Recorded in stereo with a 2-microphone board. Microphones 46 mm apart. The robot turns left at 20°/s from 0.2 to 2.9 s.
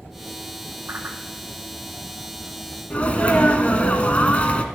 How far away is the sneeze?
About 1.2 m.